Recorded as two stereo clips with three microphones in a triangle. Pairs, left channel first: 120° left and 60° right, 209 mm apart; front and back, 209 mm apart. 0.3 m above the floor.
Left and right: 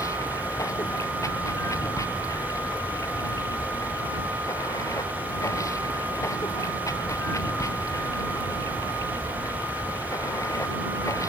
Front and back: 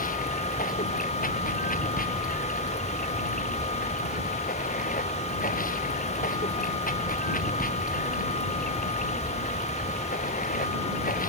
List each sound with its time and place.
0.0 s running water: 45° left